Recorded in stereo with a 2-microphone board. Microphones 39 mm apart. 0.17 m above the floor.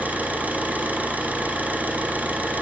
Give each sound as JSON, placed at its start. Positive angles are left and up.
{"t": 0.0, "sound": "an engine running", "side_deg": -45, "distance_m": 3.5}